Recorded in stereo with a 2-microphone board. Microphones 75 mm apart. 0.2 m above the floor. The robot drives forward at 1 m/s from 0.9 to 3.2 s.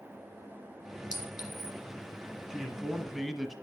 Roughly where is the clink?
Left.